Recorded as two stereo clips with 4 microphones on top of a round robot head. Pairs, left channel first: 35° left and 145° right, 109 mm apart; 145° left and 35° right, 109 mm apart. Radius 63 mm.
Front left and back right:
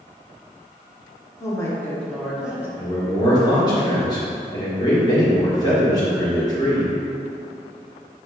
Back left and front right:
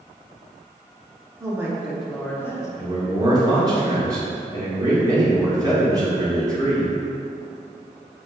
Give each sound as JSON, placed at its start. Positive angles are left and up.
{"t": 1.4, "sound": "a woman speaking", "azimuth_deg": 5, "distance_m": 0.8}
{"t": 2.8, "sound": "a man speaking", "azimuth_deg": 5, "distance_m": 1.4}